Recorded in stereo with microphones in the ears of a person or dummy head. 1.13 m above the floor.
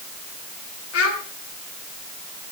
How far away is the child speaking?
About 3 m.